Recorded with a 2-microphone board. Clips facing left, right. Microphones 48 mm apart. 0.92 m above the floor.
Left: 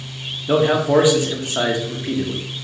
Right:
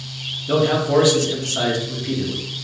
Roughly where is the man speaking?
Left.